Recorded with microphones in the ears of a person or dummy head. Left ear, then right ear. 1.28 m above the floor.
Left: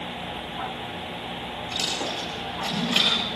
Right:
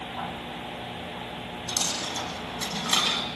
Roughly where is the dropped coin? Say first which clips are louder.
Left 1 dB; right.